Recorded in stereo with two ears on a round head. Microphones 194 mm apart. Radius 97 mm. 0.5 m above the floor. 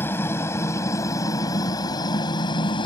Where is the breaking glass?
No breaking glass in this recording.